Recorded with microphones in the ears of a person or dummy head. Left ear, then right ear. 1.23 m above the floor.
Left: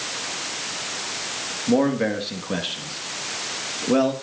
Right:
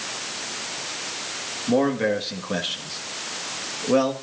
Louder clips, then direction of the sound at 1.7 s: Even; 10° right (ahead or behind).